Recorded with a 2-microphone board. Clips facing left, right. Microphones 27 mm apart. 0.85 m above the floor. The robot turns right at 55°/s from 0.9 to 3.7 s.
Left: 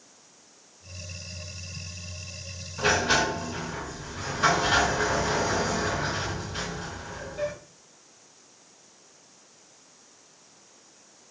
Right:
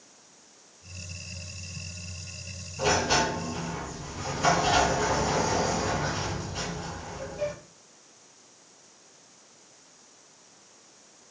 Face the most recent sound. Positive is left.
turn(degrees=100)